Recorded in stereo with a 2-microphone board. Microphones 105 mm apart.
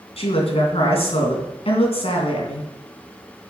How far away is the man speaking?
About 3 m.